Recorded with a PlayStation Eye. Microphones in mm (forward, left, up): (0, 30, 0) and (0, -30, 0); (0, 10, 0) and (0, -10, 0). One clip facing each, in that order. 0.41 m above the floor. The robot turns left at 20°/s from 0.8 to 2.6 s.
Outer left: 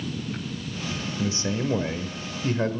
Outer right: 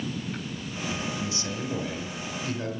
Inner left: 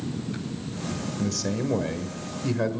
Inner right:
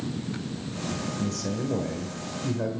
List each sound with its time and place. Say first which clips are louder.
1.2 s a man speaking: outer left 5 dB, inner left 5 dB; 35° left (ahead or behind), 1.9 m; by 2.8 s 45° left (ahead or behind), 1.9 m